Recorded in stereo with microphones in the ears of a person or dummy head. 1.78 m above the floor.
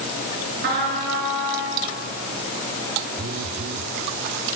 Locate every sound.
0.6 s a trumpet: 65° right (ahead or behind), 4.5 m
3.2 s a phone buzzing: 55° right (ahead or behind), 0.9 m